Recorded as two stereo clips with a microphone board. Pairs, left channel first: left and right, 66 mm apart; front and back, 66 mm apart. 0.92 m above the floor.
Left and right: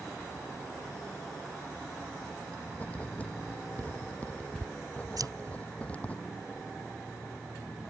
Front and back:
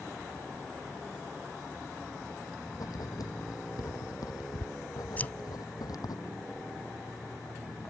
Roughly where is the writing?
Ahead.